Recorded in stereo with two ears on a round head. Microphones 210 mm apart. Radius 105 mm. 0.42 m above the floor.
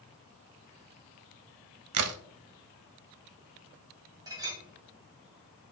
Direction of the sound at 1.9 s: 75° right (ahead or behind).